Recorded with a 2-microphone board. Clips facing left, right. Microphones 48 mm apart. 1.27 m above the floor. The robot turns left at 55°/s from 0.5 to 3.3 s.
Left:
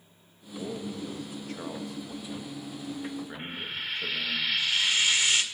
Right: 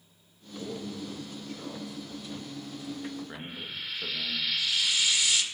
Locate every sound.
0.6 s a man speaking: 145° left, 2 m; by 4.4 s 5° right, 2 m
3.4 s frying: 35° left (ahead or behind), 1.8 m